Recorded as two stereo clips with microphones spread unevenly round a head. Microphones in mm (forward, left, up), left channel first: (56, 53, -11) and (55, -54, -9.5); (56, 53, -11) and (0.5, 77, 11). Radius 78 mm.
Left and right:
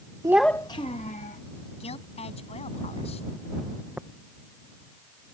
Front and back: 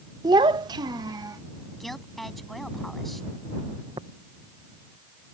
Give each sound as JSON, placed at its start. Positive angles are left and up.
{"t": 0.2, "sound": "a child speaking", "azimuth_deg": -155}
{"t": 1.8, "sound": "a woman speaking", "azimuth_deg": 65}
{"t": 4.0, "sound": "tapping", "azimuth_deg": -175}